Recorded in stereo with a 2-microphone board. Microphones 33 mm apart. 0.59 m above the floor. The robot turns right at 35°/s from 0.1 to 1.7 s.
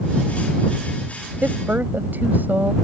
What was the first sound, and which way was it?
A woman speaking, 75° right (ahead or behind).